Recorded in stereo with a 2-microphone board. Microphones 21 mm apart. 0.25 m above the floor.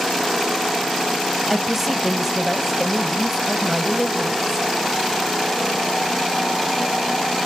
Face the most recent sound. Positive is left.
turn(degrees=-10)  # may be behind; listen again after turning